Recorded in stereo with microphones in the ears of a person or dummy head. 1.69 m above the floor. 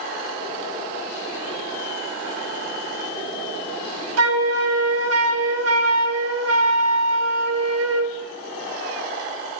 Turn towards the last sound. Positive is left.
turn(degrees=-85)